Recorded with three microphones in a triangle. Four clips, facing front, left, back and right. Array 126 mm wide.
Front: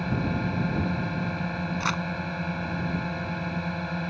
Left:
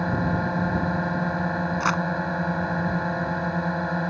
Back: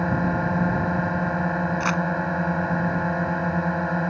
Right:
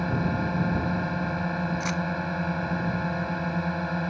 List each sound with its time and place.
0.0 s a drone: 155° left
1.8 s crumpling: 95° left